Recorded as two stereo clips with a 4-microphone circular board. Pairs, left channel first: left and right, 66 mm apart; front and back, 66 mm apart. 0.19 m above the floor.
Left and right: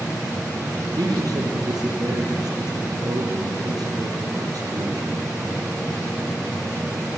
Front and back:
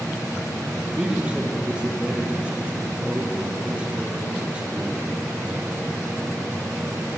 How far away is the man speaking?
About 6 m.